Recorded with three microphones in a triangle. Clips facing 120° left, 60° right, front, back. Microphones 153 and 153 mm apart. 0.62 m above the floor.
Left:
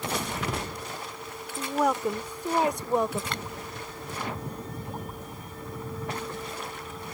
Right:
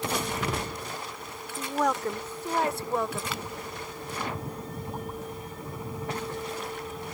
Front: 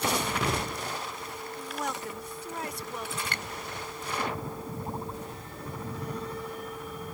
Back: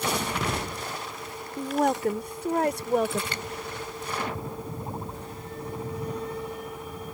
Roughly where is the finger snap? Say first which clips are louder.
Even, back 3 dB; ahead left.